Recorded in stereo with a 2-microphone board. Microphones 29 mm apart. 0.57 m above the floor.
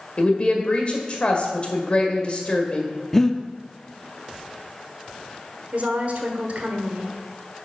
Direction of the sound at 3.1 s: 15° left (ahead or behind).